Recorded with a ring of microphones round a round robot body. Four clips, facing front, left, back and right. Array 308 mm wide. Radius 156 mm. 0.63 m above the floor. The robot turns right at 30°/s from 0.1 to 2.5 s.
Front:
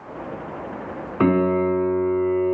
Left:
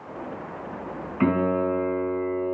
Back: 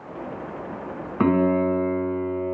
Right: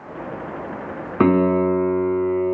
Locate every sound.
1.2 s a piano: 95° right, 2.5 m; by 2.6 s 55° right, 2.5 m